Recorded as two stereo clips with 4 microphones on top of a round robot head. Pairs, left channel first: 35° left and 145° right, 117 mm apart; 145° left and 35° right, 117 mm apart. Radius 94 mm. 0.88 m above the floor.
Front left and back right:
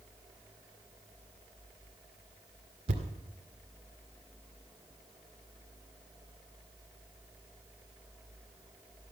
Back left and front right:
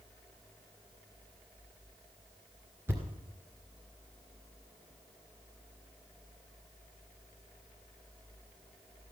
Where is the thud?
110° right, 1.9 m.